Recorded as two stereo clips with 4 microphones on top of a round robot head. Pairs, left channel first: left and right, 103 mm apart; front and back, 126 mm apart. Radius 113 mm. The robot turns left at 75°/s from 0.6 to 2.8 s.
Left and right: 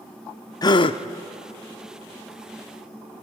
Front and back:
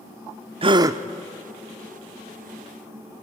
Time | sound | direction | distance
0.6 | a gasp | 135° left | 0.6 m